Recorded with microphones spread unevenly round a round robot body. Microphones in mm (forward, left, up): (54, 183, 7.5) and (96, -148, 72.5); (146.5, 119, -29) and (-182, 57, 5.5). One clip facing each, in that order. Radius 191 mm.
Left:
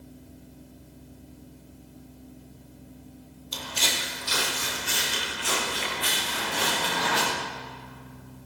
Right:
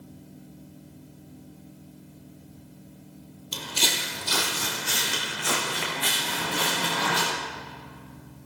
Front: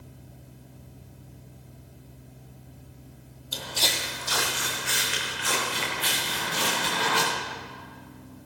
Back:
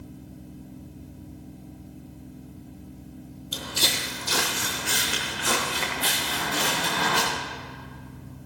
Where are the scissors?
No scissors in this recording.